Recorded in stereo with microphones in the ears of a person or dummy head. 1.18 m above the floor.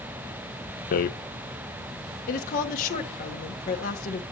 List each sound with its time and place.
0.9 s a rattle: 50° left (ahead or behind), 0.6 m
2.3 s a woman speaking: 45° left (ahead or behind), 1.8 m